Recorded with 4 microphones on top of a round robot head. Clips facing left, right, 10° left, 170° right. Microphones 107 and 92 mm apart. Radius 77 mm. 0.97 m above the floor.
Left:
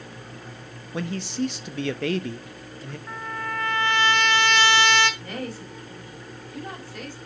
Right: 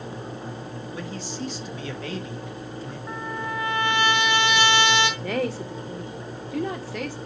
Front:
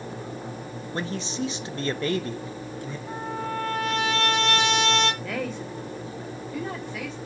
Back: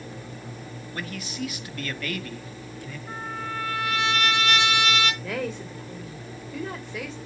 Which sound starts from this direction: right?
A woman speaking, at 5.2 s.